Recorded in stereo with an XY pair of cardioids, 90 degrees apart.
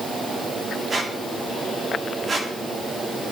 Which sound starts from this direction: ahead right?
A squeak, at 0.9 s.